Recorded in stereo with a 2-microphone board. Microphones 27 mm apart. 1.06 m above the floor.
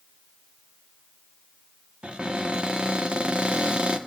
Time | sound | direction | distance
2.0 | a cupboard door | 40° right (ahead or behind) | 1.0 m